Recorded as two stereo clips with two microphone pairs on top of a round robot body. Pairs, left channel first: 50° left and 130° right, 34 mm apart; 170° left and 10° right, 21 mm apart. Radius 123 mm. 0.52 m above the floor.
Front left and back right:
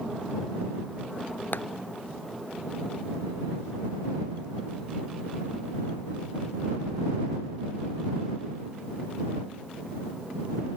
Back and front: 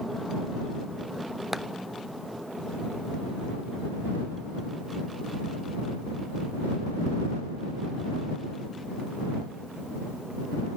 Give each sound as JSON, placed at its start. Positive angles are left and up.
{"t": 1.5, "sound": "a clap", "azimuth_deg": 65}